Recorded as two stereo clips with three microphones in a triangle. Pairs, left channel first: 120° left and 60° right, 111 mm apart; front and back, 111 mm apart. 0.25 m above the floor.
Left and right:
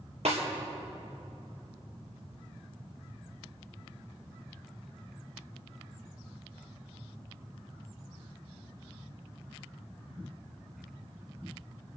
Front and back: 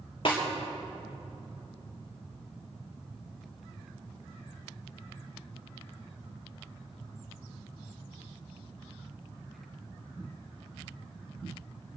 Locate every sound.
0.2 s a snare drum: 40° right, 3.5 m